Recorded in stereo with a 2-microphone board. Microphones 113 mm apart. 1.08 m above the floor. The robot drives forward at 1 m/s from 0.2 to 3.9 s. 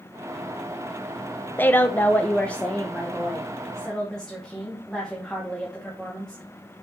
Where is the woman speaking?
15° left (ahead or behind), 0.7 m; by 6.4 s 5° left (ahead or behind), 2 m.